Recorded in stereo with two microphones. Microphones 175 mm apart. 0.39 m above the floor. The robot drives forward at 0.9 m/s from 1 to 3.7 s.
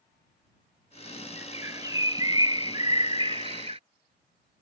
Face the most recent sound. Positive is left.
turn(degrees=-35)  # may be behind; listen again after turning